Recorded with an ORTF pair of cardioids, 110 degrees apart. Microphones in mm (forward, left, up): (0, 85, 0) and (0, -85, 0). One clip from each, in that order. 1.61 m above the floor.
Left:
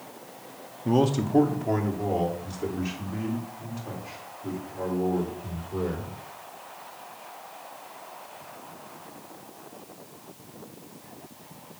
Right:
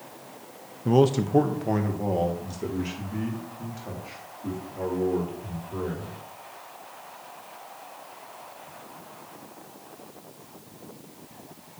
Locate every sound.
0.8 s a man speaking: 15° right, 0.9 m